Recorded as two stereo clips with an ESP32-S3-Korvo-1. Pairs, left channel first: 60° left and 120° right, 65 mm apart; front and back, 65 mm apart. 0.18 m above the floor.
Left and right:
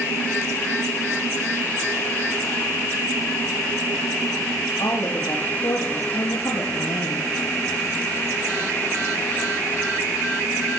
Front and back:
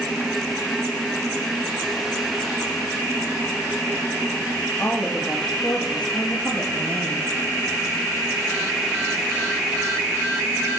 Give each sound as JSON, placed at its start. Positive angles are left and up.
{"t": 4.8, "sound": "a woman speaking", "azimuth_deg": 70, "distance_m": 4.5}